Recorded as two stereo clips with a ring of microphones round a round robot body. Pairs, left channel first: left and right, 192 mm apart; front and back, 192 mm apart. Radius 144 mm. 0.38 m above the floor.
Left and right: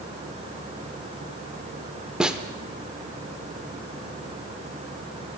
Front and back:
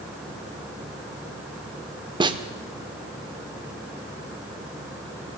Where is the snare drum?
170° right, 0.9 m.